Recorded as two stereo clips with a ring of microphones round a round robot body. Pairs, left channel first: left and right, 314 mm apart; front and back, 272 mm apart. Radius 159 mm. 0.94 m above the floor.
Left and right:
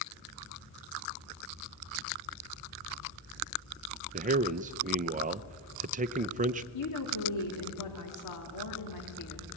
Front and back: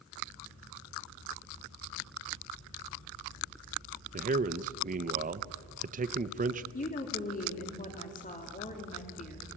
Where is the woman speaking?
60° left, 2.5 m.